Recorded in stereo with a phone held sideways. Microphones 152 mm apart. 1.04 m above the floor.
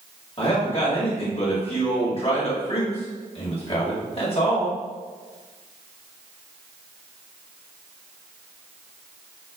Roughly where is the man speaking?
Left.